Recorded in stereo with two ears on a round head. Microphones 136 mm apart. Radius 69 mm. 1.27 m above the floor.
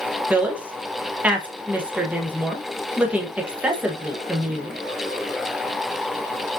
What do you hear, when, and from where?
0.3 s a woman speaking: 10° right (ahead or behind), 0.9 m